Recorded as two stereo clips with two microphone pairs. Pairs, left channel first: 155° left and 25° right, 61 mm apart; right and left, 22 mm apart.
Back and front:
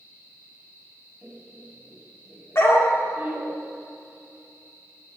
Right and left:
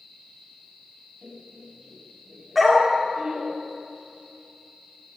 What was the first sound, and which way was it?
Laughter, 40° left.